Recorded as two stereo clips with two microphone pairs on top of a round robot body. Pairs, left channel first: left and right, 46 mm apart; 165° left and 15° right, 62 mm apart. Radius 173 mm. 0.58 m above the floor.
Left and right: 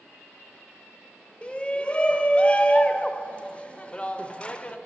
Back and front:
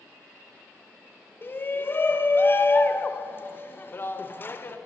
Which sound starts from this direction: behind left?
A shout, at 1.4 s.